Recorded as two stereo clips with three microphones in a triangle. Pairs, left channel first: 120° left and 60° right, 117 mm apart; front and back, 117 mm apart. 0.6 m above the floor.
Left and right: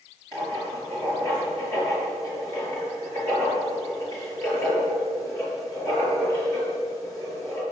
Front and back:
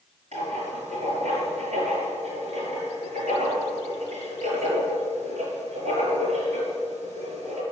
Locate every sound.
0.3 s writing: straight behind, 7 m